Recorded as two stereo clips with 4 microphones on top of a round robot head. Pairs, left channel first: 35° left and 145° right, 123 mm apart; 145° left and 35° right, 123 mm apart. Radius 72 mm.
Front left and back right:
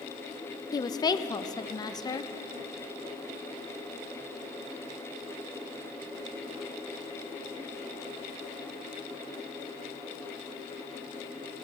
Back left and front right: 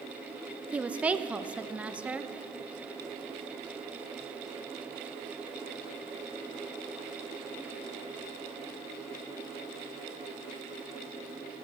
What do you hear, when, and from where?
0.7 s a woman speaking: 40° left, 0.6 m